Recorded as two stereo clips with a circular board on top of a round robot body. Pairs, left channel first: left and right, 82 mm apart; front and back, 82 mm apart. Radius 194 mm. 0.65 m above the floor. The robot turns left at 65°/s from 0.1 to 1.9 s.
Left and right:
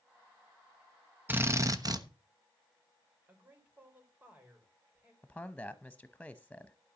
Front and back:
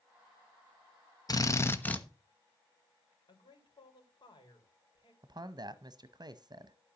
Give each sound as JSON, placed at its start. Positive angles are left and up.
{"t": 1.3, "sound": "a drill", "azimuth_deg": -30, "distance_m": 1.3}
{"t": 3.3, "sound": "a man speaking", "azimuth_deg": -25, "distance_m": 3.5}
{"t": 5.2, "sound": "a man speaking", "azimuth_deg": 165, "distance_m": 0.9}